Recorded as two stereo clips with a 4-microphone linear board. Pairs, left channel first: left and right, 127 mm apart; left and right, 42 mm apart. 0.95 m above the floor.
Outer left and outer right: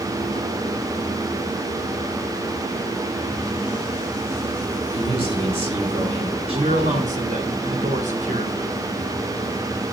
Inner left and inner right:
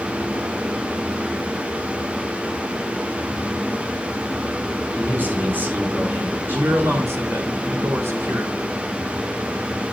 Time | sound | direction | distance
4.9 | a man speaking | 55° right (ahead or behind) | 3 m
6.5 | a man speaking | 80° right | 3 m